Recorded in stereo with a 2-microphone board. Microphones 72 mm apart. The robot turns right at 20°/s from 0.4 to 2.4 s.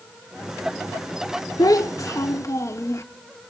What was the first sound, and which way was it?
A child speaking, 55° left (ahead or behind).